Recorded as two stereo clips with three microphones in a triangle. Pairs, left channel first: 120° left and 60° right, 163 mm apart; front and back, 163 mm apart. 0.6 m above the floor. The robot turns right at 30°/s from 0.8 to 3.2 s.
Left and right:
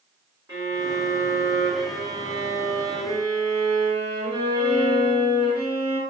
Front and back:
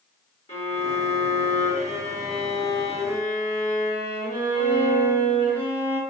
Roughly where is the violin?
Ahead.